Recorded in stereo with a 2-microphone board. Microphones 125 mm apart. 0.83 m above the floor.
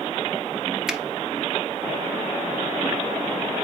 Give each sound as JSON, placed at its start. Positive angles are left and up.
{"t": 0.9, "sound": "a finger snap", "side_deg": -5, "distance_m": 0.6}